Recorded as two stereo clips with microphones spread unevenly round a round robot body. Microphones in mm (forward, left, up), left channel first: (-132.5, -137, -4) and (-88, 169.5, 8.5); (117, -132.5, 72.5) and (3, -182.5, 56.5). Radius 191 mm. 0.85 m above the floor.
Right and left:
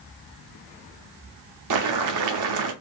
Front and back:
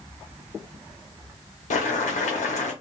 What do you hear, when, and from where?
1.7 s boiling: 50° left, 0.5 m